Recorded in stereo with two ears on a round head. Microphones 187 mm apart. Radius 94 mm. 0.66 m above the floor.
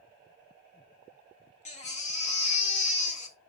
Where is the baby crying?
35° left (ahead or behind), 1.3 m.